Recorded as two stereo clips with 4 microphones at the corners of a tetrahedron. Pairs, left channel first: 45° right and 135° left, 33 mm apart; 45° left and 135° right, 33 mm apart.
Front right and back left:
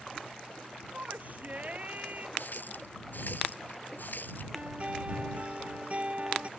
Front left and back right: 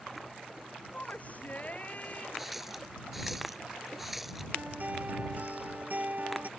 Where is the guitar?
Straight behind.